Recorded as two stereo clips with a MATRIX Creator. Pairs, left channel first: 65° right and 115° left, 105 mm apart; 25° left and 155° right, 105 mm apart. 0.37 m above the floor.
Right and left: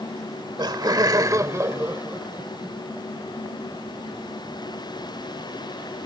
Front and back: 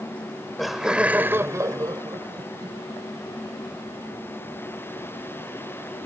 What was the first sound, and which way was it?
Laughter, 95° left.